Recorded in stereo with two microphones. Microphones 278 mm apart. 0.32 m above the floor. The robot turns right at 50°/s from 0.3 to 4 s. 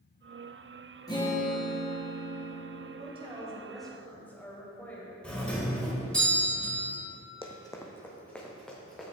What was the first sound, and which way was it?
A guitar, 15° left.